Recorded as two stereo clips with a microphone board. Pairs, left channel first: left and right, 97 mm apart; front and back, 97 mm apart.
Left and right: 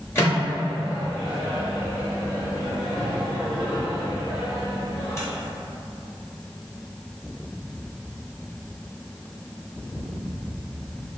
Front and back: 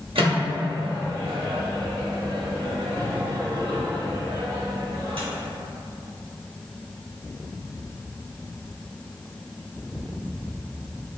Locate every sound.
0.1 s a microwave: 155° left, 1.2 m